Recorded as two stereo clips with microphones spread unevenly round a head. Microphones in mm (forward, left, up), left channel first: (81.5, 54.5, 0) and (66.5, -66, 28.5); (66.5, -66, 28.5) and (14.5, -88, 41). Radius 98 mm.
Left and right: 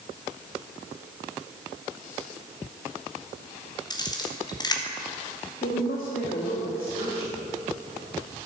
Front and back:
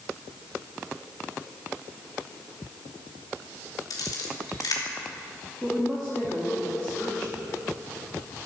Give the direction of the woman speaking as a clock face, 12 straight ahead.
8 o'clock.